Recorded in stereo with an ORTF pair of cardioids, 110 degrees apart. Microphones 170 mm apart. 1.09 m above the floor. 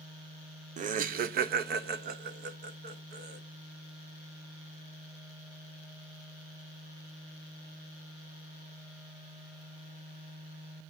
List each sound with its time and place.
0.8 s laughter: 45° right, 0.6 m; by 3.4 s 75° right, 2 m